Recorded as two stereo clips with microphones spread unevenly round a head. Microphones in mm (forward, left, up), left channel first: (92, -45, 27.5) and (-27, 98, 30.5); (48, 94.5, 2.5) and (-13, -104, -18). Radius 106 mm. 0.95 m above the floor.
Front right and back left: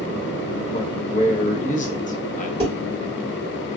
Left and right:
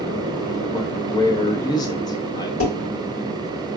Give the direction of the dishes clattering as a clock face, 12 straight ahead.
11 o'clock.